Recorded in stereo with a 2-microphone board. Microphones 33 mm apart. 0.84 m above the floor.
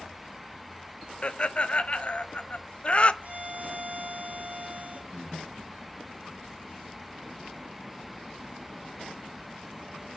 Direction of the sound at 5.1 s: 25° right (ahead or behind).